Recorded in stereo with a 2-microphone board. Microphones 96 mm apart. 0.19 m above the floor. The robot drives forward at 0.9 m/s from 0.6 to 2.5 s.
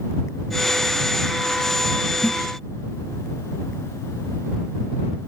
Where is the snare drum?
25° left (ahead or behind); by 2.4 s 20° left (ahead or behind).